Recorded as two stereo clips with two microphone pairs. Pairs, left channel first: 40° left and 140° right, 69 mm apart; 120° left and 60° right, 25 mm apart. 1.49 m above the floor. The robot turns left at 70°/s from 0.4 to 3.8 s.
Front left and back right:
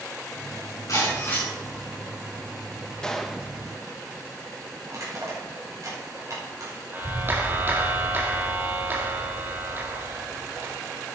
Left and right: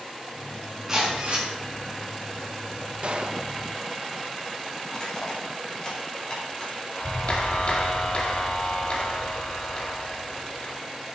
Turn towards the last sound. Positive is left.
turn(degrees=165)